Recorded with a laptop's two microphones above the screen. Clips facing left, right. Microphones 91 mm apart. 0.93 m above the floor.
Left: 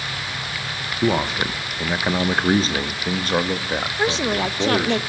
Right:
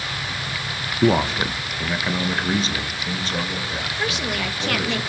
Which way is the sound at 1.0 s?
10° right (ahead or behind).